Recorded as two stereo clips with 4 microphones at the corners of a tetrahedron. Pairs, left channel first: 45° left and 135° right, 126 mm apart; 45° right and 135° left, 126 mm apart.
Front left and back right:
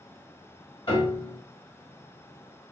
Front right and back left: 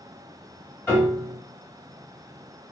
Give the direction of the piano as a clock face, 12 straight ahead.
11 o'clock.